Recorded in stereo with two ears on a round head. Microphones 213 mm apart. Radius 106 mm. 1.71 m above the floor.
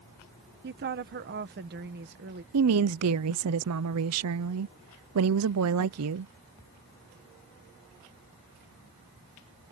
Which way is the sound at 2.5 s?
70° right (ahead or behind).